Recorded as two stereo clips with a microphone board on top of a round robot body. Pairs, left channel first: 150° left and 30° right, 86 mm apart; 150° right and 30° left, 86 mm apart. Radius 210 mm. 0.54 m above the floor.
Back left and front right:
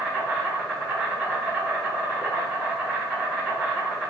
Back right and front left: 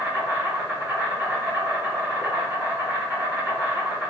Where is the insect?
25° left, 1.8 m.